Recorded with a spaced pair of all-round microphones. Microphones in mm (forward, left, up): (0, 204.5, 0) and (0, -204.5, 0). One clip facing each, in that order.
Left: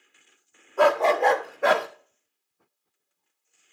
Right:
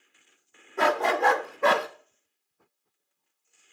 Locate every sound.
0.8 s a dog barking: 35° right (ahead or behind), 1.2 m; by 1.9 s centre (ahead or behind), 1.1 m